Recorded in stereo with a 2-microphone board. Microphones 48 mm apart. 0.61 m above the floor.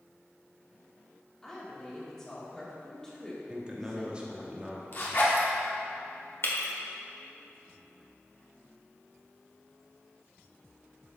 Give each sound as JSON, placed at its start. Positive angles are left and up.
{"t": 1.4, "sound": "a woman speaking", "side_deg": 10, "distance_m": 1.5}
{"t": 3.5, "sound": "a man speaking", "side_deg": -20, "distance_m": 0.9}
{"t": 4.9, "sound": "a zipper", "side_deg": 45, "distance_m": 1.4}
{"t": 6.4, "sound": "breaking glass", "side_deg": 60, "distance_m": 1.2}